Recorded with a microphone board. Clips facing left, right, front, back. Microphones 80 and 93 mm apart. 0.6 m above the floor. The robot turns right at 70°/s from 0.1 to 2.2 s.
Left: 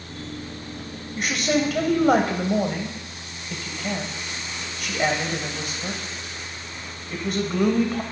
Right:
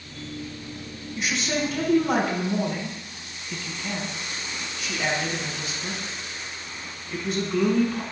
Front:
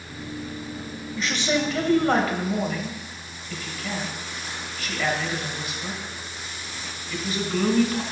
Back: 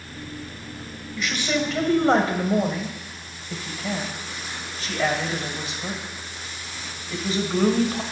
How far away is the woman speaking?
About 2.5 m.